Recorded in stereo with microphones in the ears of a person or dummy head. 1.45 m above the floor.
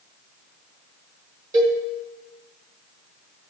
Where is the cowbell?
20° right (ahead or behind), 1.6 m.